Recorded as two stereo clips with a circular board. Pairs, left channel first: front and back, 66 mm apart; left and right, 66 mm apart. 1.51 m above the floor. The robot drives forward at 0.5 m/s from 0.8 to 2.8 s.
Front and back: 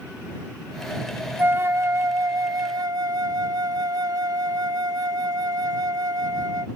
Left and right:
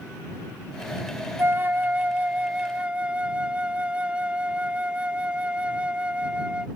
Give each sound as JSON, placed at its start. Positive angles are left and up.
{"t": 1.4, "sound": "a flute", "azimuth_deg": -130}